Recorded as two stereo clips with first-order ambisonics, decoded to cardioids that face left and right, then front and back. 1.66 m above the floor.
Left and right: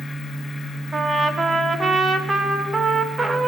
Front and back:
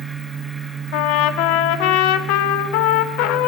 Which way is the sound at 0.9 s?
15° right.